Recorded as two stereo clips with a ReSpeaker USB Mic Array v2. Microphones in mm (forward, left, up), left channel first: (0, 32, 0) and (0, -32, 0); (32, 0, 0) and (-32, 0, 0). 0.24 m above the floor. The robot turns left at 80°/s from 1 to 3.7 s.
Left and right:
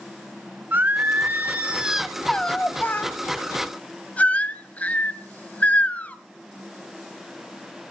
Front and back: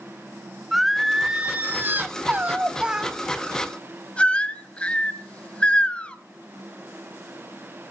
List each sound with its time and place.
0.7 s singing: 95° right, 1.4 m; by 6.2 s 50° left, 1.4 m